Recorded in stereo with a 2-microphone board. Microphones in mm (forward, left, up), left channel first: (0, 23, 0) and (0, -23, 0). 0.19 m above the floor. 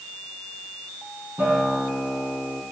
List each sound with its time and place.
1.4 s a guitar: 45° right (ahead or behind), 3 m